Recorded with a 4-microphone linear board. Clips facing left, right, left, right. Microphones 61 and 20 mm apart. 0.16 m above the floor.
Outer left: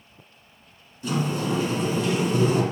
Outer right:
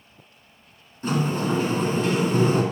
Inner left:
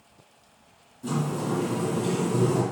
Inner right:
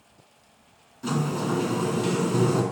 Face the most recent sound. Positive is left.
turn(degrees=-40)  # may be behind; listen again after turning